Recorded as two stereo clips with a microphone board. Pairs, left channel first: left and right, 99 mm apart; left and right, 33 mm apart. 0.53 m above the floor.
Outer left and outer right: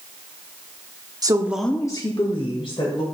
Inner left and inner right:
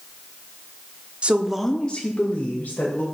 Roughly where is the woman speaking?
Right.